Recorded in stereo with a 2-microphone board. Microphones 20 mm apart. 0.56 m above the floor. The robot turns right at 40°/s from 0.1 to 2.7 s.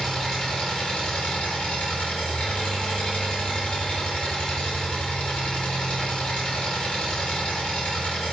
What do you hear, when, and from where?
0.0 s an engine running: 20° left, 1.1 m; by 8.3 s 125° left, 1.1 m